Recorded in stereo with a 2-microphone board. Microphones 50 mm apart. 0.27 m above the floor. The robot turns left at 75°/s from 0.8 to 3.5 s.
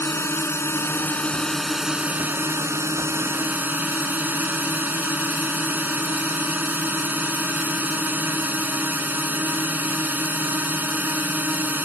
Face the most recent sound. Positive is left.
turn(degrees=-140)